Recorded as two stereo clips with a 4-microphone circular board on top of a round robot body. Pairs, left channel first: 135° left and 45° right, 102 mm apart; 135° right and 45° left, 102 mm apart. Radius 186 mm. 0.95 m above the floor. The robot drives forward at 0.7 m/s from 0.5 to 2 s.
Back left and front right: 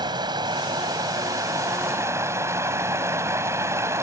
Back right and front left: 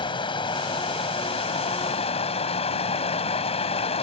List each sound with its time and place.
0.0 s running water: 95° right; by 4.0 s 110° right